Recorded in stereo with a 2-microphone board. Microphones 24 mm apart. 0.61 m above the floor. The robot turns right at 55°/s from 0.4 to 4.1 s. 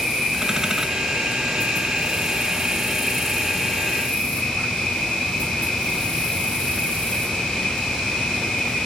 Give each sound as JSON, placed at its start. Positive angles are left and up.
{"t": 0.0, "sound": "an insect", "azimuth_deg": -145, "distance_m": 1.4}